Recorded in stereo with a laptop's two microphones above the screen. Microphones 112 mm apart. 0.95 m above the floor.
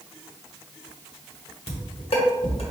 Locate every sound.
1.7 s dishes clattering: 65° left (ahead or behind), 1.2 m